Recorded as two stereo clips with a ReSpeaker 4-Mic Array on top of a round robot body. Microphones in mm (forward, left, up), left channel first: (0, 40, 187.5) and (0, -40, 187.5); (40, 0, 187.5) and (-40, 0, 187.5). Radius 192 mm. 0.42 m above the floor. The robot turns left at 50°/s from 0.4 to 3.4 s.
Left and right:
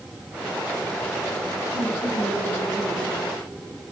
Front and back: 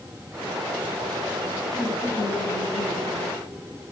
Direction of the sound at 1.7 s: 75° left.